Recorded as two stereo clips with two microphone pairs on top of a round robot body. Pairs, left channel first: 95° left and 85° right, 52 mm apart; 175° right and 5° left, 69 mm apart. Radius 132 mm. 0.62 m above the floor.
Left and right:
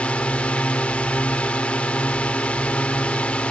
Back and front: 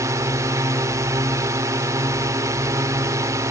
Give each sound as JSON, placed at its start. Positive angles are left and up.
{"t": 0.0, "sound": "a drone", "azimuth_deg": 30}